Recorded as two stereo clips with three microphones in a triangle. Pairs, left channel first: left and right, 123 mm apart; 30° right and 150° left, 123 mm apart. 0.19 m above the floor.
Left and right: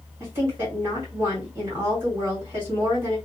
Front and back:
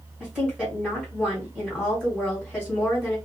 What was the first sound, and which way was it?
A woman speaking, 130° right.